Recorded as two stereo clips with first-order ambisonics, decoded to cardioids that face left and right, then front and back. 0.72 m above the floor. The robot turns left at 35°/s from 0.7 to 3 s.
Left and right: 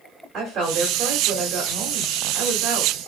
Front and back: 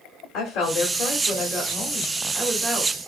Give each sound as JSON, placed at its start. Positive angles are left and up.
{"t": 0.3, "sound": "a woman speaking", "azimuth_deg": -35, "distance_m": 1.6}